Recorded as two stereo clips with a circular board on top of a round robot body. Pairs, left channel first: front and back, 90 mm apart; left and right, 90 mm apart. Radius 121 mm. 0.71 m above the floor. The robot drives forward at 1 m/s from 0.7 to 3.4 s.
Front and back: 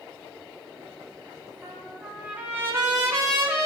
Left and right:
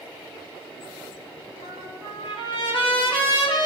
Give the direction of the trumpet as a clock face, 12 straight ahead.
9 o'clock.